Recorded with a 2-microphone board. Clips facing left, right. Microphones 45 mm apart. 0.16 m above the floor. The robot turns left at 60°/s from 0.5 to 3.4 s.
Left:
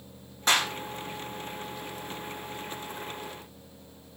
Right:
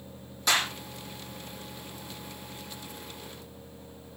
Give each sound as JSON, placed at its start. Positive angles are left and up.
{"t": 0.5, "sound": "a clap", "side_deg": 40, "distance_m": 6.5}